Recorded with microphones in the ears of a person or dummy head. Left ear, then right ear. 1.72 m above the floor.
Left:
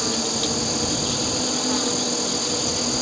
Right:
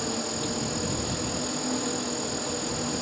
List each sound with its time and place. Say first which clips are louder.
0.0 s an insect: left 7 dB; 30° left (ahead or behind)